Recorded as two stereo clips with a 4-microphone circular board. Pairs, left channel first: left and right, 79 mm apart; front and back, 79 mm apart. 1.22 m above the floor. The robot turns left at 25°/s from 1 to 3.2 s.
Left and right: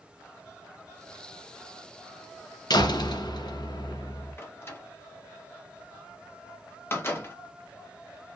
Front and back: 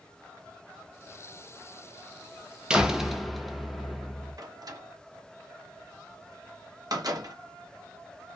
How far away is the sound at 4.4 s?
About 0.7 m.